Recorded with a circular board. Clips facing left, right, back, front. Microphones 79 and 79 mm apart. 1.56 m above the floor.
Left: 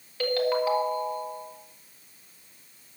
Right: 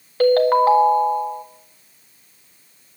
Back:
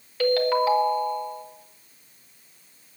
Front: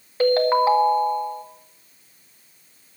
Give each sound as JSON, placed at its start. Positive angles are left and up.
{"t": 0.2, "sound": "a ringtone", "azimuth_deg": -55, "distance_m": 1.6}